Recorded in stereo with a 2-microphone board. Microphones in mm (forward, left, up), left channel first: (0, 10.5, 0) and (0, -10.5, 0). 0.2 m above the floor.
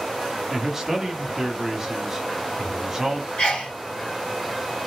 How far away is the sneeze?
About 2.5 m.